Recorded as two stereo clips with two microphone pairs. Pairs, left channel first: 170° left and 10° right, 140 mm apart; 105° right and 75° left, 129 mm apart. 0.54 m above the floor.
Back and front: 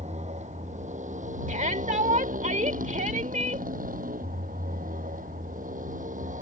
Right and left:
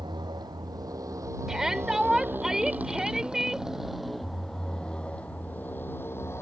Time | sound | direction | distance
0.0 | a motorcycle | 20° left | ?
1.5 | a shout | 10° right | ?